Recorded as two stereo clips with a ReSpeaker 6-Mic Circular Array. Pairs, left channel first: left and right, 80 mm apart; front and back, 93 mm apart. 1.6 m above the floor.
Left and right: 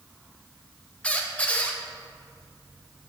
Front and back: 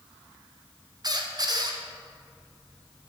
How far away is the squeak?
About 0.7 m.